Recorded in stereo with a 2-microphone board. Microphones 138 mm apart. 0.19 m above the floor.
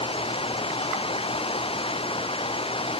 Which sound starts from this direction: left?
Running water, at 0.0 s.